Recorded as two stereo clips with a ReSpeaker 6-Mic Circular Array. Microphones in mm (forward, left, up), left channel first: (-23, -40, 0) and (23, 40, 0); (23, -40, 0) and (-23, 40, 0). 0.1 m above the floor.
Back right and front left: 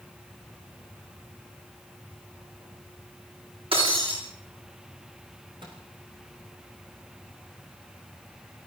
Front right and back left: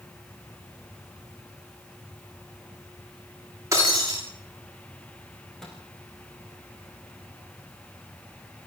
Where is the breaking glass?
65° left, 9.5 m.